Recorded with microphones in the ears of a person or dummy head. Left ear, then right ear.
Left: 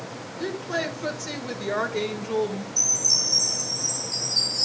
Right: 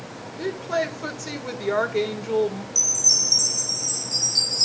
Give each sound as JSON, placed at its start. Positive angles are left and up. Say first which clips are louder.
{"t": 0.4, "sound": "a woman speaking", "louder": "right 3 dB", "side_deg": -25, "distance_m": 1.5}
{"t": 2.8, "sound": "a chime", "louder": "right 2 dB", "side_deg": -75, "distance_m": 7.5}